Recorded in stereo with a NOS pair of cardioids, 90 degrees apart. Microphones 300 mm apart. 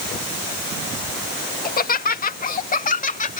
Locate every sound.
1.6 s laughter: 30° left; by 3.4 s 25° left